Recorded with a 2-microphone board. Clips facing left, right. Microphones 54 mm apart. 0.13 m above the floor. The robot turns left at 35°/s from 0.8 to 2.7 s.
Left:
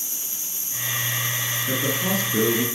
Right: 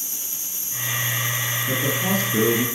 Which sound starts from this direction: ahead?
A man speaking, at 1.7 s.